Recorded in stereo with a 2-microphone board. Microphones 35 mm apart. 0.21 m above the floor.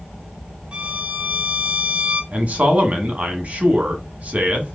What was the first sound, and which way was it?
A violin, 35° right (ahead or behind).